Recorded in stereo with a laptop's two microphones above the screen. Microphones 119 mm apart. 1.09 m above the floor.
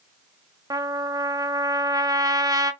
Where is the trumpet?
30° right (ahead or behind), 1.0 m.